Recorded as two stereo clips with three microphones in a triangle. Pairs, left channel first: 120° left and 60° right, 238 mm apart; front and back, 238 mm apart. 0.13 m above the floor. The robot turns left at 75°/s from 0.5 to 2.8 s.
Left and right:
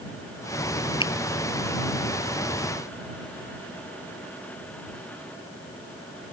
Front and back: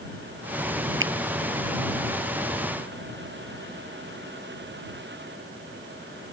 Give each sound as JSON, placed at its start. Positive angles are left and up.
{"t": 1.0, "sound": "a finger snap", "azimuth_deg": -175}